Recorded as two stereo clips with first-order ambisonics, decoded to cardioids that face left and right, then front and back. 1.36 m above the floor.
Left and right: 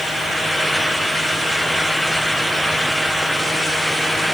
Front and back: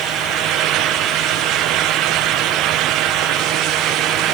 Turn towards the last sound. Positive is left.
No sound to turn to.